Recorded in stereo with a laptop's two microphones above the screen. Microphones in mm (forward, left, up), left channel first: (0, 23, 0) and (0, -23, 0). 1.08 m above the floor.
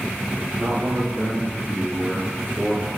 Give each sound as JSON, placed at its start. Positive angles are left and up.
{"t": 0.6, "sound": "a man speaking", "side_deg": -20, "distance_m": 0.6}